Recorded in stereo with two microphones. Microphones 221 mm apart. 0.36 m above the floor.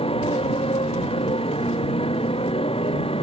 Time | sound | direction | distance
0.0 | a motorcycle | 25° left (ahead or behind) | ?